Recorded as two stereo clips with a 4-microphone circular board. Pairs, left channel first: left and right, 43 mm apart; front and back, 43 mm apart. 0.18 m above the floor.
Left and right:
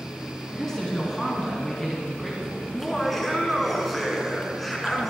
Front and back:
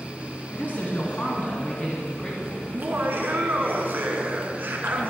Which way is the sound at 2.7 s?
175° left.